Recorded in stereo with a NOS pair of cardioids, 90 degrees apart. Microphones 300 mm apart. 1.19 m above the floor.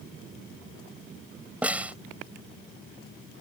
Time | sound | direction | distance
1.6 | a snare drum | 5° right | ?